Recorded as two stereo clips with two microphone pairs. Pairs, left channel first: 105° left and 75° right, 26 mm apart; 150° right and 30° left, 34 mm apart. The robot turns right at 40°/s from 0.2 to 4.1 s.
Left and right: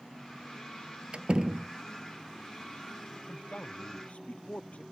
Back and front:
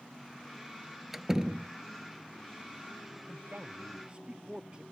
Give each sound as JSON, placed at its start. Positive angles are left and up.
{"t": 1.1, "sound": "a door slam", "azimuth_deg": -50}
{"t": 3.2, "sound": "a man speaking", "azimuth_deg": 55}